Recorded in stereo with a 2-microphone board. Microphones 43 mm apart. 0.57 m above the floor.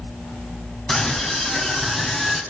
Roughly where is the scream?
Centre.